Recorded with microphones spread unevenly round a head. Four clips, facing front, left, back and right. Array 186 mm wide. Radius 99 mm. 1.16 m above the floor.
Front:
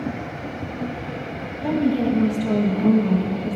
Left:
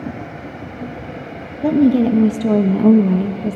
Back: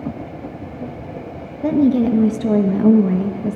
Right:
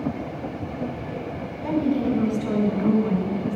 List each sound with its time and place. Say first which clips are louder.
1.6 s a woman speaking: left 9 dB, back 5 dB; 125° left, 1.4 m